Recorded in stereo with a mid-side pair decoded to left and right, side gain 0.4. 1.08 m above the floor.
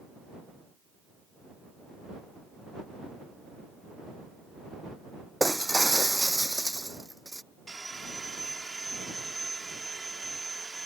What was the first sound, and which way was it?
Breaking glass, 10° right.